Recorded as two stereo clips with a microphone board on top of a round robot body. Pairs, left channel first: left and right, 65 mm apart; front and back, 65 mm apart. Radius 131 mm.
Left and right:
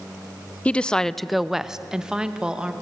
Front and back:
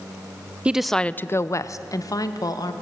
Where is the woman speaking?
135° left, 0.7 m; by 2.7 s 15° right, 1.8 m.